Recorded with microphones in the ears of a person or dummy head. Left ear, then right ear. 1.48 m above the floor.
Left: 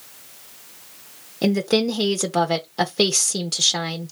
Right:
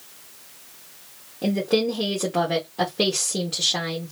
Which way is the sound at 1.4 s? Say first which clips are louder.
Left 2 dB; 80° left.